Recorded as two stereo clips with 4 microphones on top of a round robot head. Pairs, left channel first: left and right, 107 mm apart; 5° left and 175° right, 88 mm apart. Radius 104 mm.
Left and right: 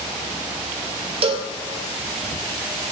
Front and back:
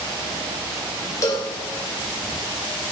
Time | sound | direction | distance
1.2 | a cowbell | 55° right | 1.4 m